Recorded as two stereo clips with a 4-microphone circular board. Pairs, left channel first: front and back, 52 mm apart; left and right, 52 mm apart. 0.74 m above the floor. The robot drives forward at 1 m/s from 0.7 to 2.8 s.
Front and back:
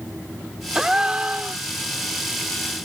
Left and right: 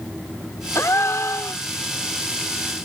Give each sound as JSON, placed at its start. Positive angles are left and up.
{"t": 0.8, "sound": "a gasp", "azimuth_deg": 100}